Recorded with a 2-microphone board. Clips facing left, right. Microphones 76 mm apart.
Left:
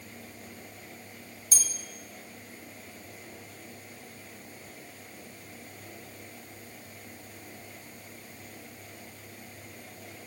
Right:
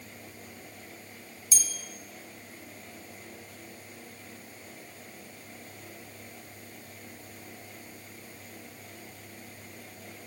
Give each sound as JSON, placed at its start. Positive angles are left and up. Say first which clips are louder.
{"t": 1.5, "sound": "a bell", "louder": "even", "side_deg": 50, "distance_m": 1.0}